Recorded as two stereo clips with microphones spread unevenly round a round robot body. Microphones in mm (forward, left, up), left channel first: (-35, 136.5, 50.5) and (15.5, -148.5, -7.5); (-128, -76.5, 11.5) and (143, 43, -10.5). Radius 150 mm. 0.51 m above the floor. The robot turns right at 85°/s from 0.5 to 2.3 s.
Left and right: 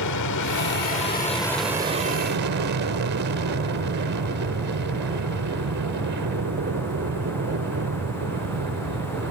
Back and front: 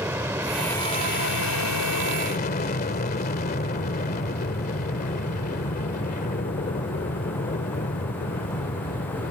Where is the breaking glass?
No breaking glass in this recording.